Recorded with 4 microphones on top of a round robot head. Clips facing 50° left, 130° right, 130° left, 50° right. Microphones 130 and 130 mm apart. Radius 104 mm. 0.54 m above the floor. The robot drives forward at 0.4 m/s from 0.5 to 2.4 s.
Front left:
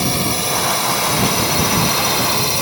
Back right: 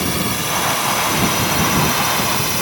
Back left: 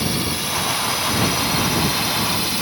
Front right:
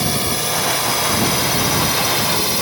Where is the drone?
10° right.